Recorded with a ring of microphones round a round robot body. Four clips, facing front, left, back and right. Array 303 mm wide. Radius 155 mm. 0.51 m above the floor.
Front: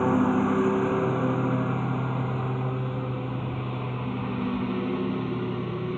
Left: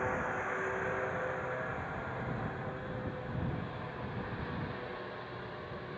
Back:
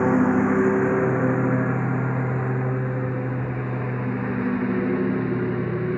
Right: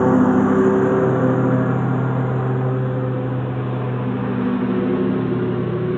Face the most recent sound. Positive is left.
turn(degrees=-105)